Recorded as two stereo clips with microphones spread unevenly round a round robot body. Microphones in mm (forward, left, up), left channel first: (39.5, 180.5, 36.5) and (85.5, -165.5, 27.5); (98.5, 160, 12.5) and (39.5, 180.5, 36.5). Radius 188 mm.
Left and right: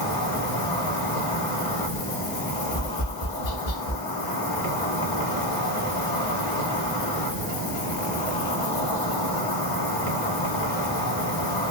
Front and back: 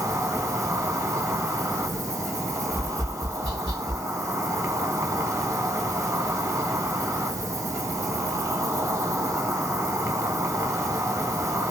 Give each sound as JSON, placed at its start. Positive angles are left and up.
{"t": 0.0, "sound": "an insect", "azimuth_deg": 110, "distance_m": 1.6}
{"t": 2.7, "sound": "tapping", "azimuth_deg": 125, "distance_m": 3.0}